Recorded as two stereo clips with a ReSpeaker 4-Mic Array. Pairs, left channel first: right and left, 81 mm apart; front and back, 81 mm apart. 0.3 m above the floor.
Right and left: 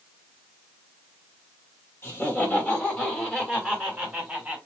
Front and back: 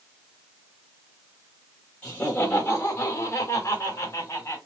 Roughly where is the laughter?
Ahead right.